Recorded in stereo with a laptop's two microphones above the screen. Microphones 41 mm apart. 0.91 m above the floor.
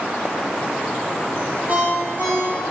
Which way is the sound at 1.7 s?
40° right (ahead or behind).